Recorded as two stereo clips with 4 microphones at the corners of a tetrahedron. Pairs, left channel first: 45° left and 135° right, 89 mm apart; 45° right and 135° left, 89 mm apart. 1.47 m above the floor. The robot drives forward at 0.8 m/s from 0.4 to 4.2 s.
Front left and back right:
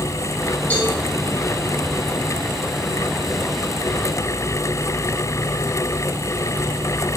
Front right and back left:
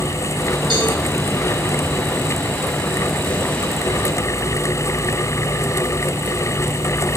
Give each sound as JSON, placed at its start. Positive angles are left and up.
{"t": 0.7, "sound": "a cowbell", "azimuth_deg": 120, "distance_m": 5.5}